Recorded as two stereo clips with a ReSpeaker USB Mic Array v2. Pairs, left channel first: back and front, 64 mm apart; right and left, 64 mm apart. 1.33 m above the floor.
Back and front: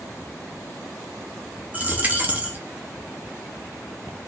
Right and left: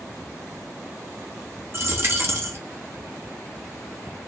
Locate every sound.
1.7 s a dropped coin: 55° left, 0.9 m